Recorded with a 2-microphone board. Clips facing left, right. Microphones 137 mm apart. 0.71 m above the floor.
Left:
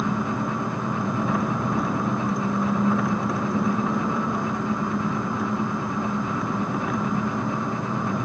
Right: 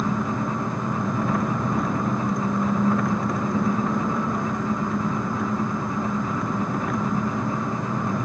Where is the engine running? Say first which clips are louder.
Even; centre (ahead or behind).